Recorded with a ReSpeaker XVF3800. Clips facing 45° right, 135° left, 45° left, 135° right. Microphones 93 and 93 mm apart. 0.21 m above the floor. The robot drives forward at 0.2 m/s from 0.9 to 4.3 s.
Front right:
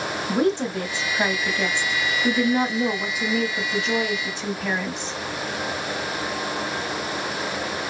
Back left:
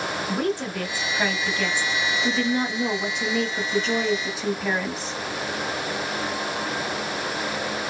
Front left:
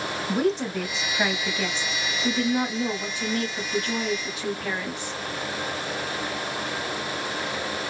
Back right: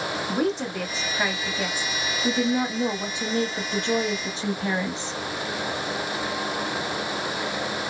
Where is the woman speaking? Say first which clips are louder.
Front right 6 dB, front left 2 dB; 45° right, 1.0 m; by 5.2 s 140° right, 1.1 m.